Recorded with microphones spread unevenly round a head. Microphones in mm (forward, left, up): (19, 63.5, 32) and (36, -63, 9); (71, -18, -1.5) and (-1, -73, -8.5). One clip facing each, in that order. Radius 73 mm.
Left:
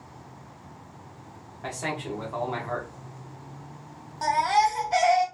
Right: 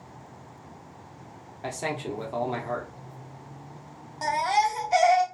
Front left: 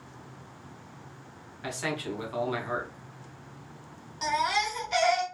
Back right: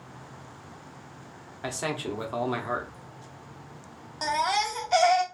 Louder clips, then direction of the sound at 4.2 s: Left 2 dB, back right 1 dB; 160° right.